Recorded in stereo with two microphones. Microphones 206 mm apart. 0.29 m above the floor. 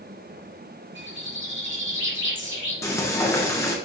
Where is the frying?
15° left (ahead or behind), 2.0 m.